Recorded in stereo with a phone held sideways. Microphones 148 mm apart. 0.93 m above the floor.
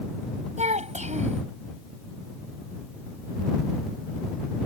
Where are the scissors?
I don't hear scissors.